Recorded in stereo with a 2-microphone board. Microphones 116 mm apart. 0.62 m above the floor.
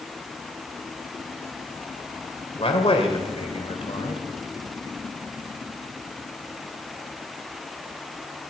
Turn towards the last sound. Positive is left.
turn(degrees=50)  # may be behind; listen again after turning